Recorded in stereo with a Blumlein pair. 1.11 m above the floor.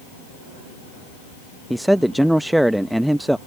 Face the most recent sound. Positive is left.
turn(degrees=-5)